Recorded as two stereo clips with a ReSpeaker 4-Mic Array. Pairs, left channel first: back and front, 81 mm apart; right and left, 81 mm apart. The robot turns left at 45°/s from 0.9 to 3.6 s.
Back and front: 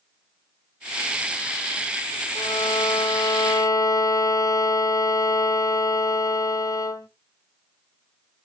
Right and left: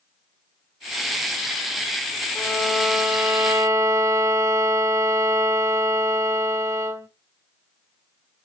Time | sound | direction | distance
2.4 | a violin | 165° right | 0.6 m